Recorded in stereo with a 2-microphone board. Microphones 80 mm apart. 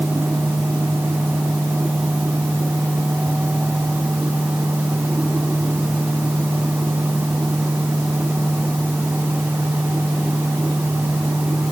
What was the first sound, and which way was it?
Only background noise.